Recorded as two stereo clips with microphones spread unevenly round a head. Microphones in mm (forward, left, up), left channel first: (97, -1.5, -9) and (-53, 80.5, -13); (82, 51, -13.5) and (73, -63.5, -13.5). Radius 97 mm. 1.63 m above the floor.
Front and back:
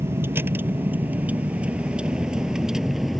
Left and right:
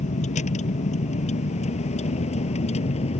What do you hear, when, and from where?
0.0 s a vehicle: 75° left; by 3.2 s 65° left